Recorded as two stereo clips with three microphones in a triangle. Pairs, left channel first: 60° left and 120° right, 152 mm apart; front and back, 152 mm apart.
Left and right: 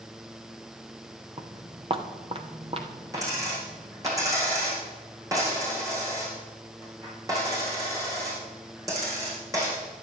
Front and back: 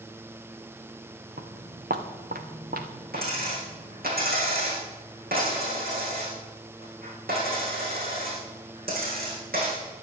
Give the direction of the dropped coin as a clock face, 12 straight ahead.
6 o'clock.